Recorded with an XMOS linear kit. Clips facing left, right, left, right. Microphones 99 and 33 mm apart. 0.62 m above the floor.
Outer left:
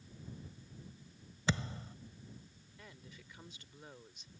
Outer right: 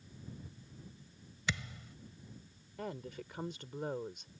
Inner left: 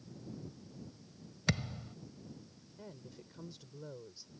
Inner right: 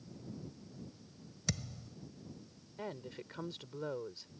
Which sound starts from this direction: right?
A woman speaking, at 2.8 s.